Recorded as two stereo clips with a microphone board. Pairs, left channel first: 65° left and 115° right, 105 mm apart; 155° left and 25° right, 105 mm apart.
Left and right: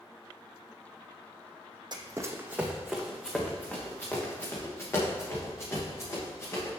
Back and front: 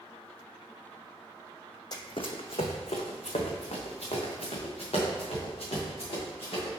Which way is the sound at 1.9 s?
155° right.